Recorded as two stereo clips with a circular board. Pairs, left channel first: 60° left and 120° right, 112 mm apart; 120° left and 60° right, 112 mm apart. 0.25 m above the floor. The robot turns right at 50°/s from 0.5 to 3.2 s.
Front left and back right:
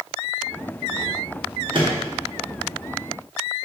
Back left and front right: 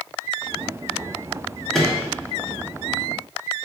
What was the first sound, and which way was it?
A microwave, 155° right.